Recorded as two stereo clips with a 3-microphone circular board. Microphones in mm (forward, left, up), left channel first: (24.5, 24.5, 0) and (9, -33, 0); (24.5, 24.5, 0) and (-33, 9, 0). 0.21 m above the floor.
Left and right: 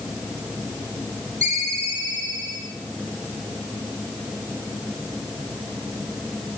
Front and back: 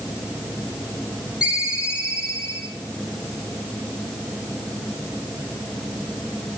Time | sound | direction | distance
1.4 | a ringtone | 90° right | 6 m